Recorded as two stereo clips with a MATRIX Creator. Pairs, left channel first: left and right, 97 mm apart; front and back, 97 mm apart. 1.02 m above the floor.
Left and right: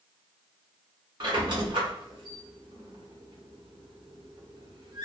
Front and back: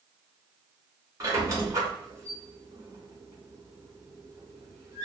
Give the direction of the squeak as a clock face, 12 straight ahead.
4 o'clock.